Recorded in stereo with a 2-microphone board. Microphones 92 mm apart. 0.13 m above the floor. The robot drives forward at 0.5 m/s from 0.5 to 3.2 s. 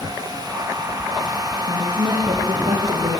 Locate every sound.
1.7 s a woman speaking: 75° right (ahead or behind), 6 m